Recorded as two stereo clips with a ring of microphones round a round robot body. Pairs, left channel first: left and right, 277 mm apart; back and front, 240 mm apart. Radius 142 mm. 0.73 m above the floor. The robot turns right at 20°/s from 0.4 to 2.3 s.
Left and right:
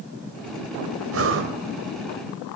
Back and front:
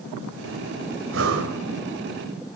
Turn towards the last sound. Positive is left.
turn(degrees=-25)